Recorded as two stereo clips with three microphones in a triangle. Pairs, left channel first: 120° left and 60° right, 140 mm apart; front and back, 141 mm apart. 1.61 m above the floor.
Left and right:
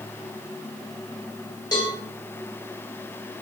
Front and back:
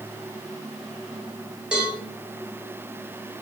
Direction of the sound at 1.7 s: 105° left.